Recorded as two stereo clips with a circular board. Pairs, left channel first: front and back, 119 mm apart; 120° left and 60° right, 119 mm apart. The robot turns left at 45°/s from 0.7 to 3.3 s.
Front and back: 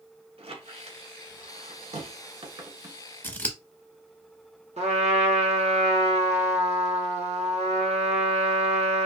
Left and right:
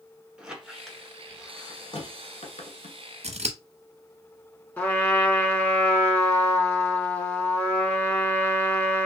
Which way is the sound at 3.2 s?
75° right.